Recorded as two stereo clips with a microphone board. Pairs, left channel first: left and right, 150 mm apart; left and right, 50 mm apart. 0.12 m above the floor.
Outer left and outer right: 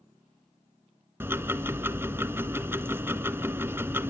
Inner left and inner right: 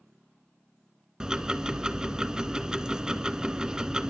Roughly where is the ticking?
Centre.